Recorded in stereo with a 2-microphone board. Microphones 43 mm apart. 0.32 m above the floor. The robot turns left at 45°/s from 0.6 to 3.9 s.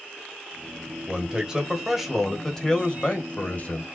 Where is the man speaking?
130° right, 1.4 m; by 3.8 s 105° left, 1.4 m.